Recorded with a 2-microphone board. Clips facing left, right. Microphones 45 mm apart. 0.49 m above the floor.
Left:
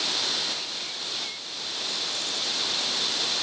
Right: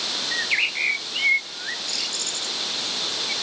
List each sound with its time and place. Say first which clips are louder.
0.3 s a bird: right 9 dB; 85° right